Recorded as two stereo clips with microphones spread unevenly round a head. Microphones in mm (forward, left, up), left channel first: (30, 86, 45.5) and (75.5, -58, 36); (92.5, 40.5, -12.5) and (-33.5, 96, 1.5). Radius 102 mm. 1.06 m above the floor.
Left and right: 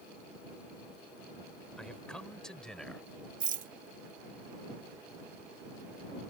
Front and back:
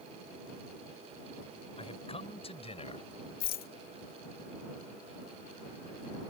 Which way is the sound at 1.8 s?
25° left.